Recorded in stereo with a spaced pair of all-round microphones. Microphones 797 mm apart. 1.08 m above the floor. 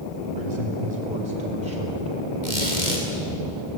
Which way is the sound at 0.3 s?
75° right (ahead or behind).